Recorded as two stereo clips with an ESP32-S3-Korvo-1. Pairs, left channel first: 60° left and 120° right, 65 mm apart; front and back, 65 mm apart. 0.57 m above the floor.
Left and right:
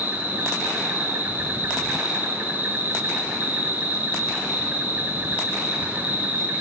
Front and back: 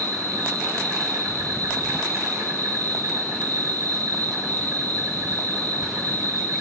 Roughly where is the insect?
Behind.